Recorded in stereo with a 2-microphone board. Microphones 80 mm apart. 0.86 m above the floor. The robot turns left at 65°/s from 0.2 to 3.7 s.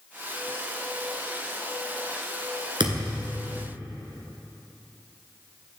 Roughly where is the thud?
Right.